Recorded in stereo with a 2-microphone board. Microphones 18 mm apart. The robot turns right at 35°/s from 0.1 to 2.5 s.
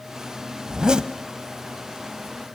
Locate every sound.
0.7 s a zipper: 40° right (ahead or behind), 1.5 m; by 1.1 s 55° right (ahead or behind), 1.5 m